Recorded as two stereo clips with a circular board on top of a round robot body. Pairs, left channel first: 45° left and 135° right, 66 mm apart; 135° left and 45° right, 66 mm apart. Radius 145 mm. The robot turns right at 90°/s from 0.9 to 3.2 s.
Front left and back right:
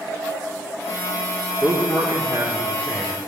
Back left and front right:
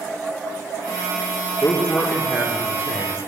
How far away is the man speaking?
About 1.9 m.